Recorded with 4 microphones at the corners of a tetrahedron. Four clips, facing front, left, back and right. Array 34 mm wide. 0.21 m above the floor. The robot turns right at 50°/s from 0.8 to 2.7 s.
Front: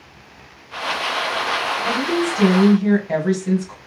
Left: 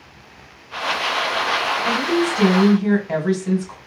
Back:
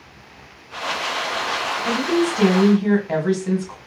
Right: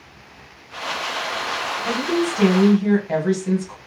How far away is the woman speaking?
About 1.4 m.